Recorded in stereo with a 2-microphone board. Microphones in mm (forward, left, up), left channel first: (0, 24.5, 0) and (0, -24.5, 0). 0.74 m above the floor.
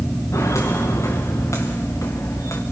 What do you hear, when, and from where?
0.3 s footsteps: 80° left, 5.5 m